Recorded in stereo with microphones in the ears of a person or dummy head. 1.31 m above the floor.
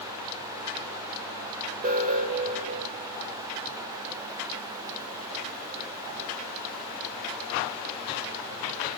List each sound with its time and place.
1.8 s an alarm: 40° right (ahead or behind), 1.6 m